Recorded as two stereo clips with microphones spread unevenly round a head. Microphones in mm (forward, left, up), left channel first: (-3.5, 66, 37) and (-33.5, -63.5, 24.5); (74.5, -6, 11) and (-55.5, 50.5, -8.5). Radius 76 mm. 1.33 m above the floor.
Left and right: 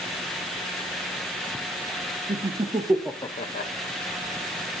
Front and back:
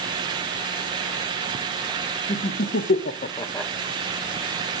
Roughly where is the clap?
No clap in this recording.